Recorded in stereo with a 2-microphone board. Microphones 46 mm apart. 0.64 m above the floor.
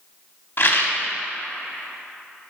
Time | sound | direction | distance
0.6 | a rattle | 50° left (ahead or behind) | 0.9 m